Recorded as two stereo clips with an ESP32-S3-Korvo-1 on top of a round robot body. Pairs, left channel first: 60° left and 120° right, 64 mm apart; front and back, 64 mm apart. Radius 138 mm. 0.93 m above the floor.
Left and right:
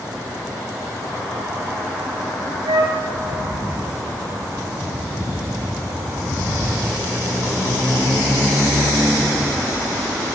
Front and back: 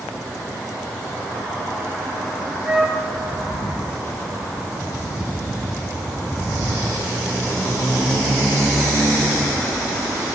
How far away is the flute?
About 3.5 m.